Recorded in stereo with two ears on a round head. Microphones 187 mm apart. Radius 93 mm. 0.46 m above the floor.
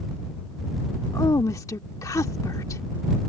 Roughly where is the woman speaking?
Centre.